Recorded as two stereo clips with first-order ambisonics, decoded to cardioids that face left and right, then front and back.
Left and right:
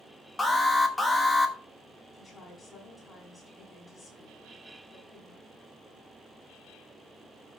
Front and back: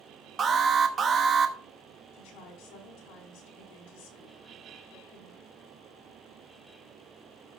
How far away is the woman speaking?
About 5.5 m.